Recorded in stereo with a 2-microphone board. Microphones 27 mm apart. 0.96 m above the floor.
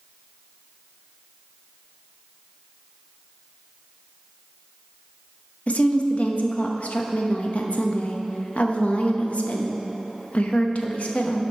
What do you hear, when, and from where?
5.7 s a woman speaking: 55° left (ahead or behind), 0.9 m